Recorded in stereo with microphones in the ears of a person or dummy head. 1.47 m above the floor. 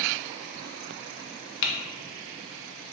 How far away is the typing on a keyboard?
About 0.6 m.